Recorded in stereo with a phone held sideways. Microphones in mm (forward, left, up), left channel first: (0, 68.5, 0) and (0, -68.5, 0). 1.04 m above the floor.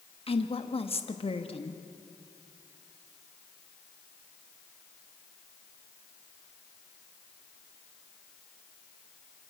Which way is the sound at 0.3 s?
45° left (ahead or behind).